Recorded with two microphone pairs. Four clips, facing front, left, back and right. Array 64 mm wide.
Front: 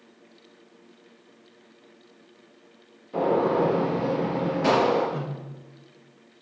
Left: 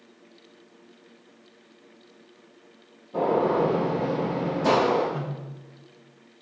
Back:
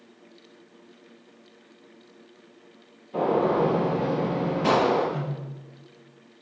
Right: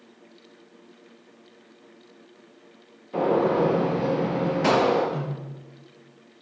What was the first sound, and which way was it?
A gunshot, 70° right.